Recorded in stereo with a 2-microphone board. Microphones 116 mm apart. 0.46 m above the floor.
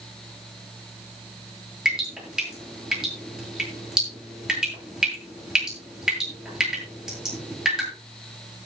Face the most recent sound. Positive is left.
turn(degrees=-5)  # may be behind; listen again after turning